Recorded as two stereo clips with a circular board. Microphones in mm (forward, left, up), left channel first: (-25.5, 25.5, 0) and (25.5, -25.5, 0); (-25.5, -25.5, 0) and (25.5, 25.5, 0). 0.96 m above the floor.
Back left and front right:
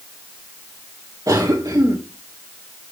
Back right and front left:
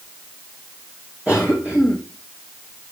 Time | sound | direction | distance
1.3 | a cough | 20° right | 3.5 m